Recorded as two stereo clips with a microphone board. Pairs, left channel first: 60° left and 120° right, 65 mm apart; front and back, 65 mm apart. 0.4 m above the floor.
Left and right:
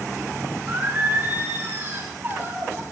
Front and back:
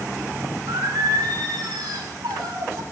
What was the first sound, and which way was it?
Singing, 175° left.